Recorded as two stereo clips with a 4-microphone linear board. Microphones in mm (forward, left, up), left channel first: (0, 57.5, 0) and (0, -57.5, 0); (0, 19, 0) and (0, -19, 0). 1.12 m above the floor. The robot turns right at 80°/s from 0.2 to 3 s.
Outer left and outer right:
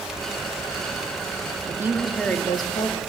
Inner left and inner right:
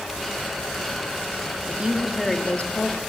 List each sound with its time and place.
1.7 s a woman speaking: 35° right, 2.5 m; by 3.0 s 70° left, 2.5 m